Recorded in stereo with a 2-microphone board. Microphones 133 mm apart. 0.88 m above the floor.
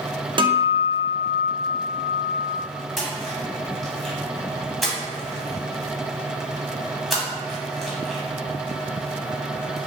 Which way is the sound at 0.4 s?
40° right (ahead or behind).